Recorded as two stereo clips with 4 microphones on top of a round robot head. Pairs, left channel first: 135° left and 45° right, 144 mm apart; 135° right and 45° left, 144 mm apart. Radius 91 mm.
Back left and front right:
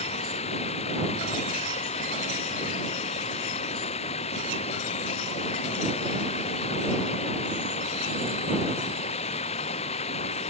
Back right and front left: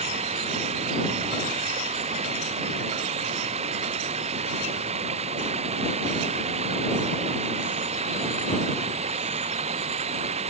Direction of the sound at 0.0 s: 90° left.